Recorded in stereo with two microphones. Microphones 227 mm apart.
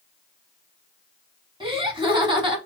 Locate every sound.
1.6 s laughter: 20° right (ahead or behind), 1.1 m